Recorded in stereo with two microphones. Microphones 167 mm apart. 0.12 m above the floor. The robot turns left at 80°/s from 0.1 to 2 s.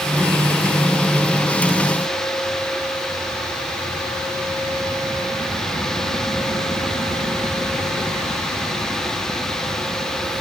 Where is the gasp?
I don't hear a gasp.